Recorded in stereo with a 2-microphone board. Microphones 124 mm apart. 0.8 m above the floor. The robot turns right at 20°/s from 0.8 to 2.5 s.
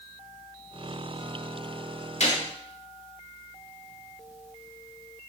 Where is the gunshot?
65° left (ahead or behind), 1.7 m; by 2.4 s 70° left (ahead or behind), 1.7 m.